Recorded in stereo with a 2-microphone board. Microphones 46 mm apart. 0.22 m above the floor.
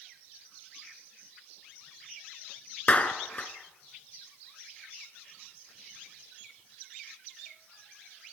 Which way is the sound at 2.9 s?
30° left (ahead or behind).